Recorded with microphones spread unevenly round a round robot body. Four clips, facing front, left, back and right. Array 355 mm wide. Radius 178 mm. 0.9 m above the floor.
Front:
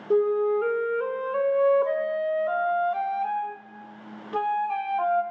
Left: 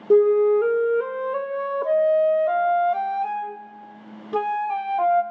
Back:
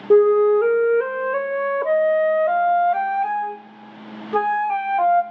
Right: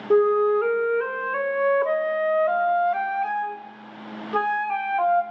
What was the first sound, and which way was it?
A flute, 150° left.